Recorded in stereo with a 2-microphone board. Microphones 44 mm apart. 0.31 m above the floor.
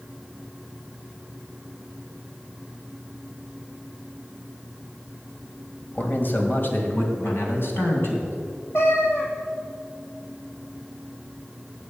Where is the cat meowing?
65° left (ahead or behind), 2.5 m.